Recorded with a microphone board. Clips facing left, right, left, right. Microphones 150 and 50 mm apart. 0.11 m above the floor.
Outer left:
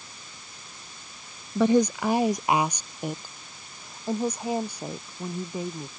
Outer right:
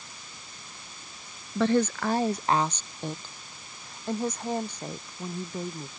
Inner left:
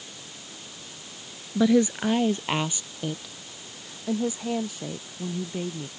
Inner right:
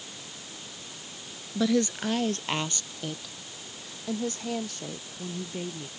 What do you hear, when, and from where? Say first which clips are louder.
1.6 s a woman speaking: outer left 3 dB, inner left 5 dB; 15° left (ahead or behind); by 5.9 s 10° left (ahead or behind)